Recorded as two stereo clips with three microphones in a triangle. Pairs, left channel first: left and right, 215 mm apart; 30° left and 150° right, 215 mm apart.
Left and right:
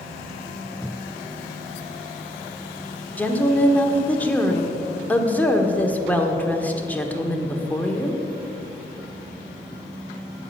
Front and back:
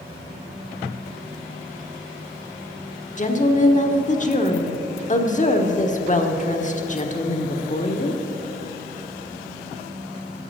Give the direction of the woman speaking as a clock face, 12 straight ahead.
12 o'clock.